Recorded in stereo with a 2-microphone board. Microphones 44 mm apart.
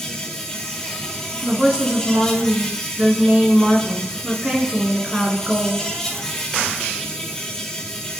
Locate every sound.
0.0 s an insect: 10° left (ahead or behind), 1.4 m
1.4 s a woman speaking: 25° right (ahead or behind), 1.5 m